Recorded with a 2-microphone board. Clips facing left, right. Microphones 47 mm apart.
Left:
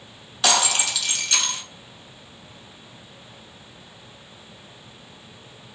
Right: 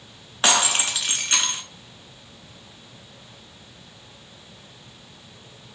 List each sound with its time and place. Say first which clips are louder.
0.4 s breaking glass: even; 40° right (ahead or behind), 0.8 m